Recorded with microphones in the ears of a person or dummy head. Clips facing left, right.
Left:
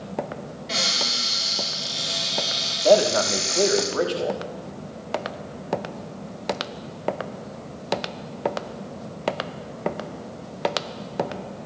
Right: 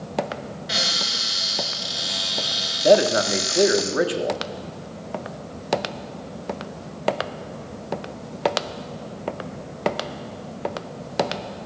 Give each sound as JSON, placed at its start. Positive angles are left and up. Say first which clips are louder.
{"t": 0.7, "sound": "a cupboard door", "louder": "left 2 dB", "side_deg": -10, "distance_m": 6.5}
{"t": 2.8, "sound": "a man speaking", "louder": "right 1 dB", "side_deg": -20, "distance_m": 1.3}